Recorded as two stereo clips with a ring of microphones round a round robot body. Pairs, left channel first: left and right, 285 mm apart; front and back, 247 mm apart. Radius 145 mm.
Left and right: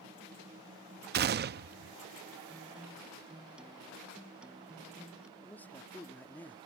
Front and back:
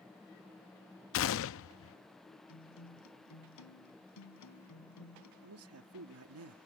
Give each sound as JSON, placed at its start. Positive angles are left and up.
{"t": 1.1, "sound": "a gunshot", "azimuth_deg": -35}
{"t": 2.5, "sound": "a guitar", "azimuth_deg": -5}
{"t": 5.4, "sound": "a man speaking", "azimuth_deg": 175}